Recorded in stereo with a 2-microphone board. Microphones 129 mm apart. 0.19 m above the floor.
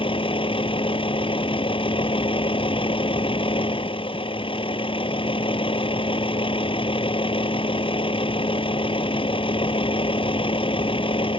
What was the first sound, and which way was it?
A vehicle, 40° left (ahead or behind).